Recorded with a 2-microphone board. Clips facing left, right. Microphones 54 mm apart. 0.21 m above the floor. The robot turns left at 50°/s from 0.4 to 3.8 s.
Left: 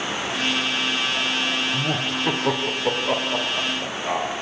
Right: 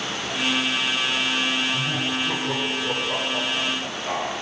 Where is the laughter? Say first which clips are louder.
Left 1 dB; 60° left (ahead or behind), 5.5 m; by 4.4 s 15° left (ahead or behind), 5.5 m.